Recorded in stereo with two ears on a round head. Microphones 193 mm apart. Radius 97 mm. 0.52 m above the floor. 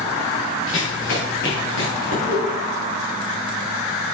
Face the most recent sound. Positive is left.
turn(degrees=60)  # may be behind; listen again after turning